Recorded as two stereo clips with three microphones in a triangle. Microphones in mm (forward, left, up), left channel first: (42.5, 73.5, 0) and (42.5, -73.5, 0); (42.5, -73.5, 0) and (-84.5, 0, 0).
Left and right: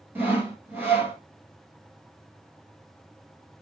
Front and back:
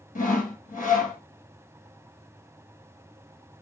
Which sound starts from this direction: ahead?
Sawing, at 0.1 s.